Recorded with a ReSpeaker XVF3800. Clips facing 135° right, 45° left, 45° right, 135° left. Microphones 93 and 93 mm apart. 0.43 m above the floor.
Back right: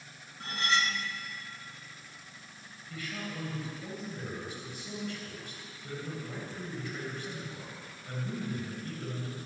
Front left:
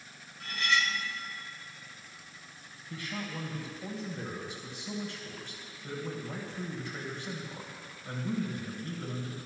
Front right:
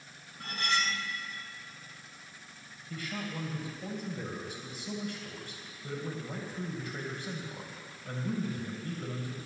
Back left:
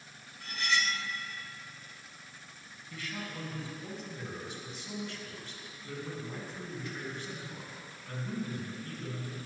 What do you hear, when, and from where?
0.4 s cutlery clinking: 80° right, 0.9 m
2.9 s a man speaking: 20° right, 2.5 m